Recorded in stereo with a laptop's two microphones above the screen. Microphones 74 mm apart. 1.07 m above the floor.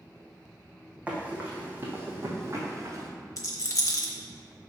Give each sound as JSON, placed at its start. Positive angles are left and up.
{"t": 1.1, "sound": "running footsteps", "side_deg": -15, "distance_m": 2.5}
{"t": 3.4, "sound": "a rattle", "side_deg": 45, "distance_m": 0.9}